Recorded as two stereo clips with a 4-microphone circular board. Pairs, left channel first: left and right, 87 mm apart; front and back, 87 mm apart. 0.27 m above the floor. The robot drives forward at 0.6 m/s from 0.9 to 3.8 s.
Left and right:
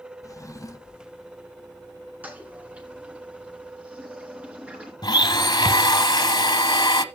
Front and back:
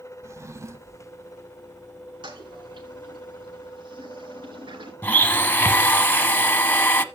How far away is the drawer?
About 0.6 m.